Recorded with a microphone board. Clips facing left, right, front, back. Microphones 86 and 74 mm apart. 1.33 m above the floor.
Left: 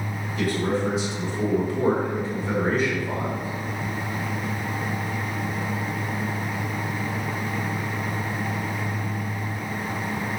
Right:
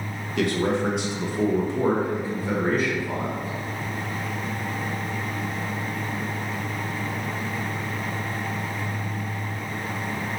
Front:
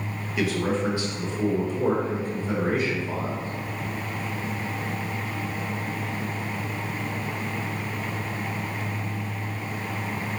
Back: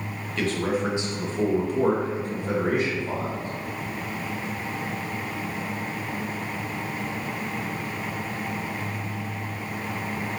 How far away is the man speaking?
About 1.0 m.